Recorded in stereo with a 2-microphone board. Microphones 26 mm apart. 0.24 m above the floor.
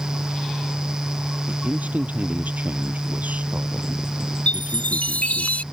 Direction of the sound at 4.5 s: 75° left (ahead or behind).